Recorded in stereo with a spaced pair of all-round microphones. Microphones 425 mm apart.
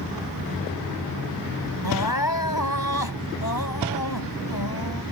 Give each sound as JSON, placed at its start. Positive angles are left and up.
{"t": 1.8, "sound": "crying", "side_deg": 55}